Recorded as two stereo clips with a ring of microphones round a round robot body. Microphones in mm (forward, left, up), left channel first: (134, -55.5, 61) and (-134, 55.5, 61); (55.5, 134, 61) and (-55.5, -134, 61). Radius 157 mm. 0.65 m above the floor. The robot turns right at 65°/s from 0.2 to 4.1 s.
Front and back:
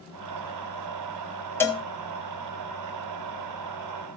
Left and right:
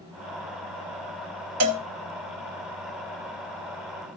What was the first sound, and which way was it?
A cowbell, 105° right.